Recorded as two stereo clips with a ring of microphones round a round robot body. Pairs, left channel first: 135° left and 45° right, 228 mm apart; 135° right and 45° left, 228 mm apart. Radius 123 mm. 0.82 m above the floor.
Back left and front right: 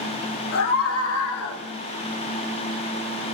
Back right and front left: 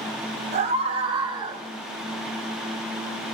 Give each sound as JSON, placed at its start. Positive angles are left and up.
{"t": 0.5, "sound": "a scream", "azimuth_deg": 110, "distance_m": 5.0}